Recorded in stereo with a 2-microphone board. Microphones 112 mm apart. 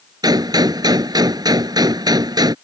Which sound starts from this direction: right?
A gunshot, at 0.2 s.